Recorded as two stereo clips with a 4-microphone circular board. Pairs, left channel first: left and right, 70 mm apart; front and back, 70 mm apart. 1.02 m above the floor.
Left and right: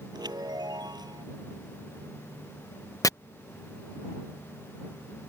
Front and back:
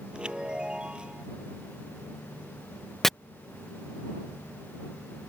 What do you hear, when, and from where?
0.1 s a chime: 105° right
3.0 s chopping: 85° left